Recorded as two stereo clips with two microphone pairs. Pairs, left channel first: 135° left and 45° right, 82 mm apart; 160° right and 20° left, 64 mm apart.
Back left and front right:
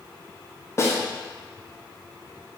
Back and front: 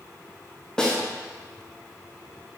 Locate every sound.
0.8 s a snare drum: 140° left, 0.5 m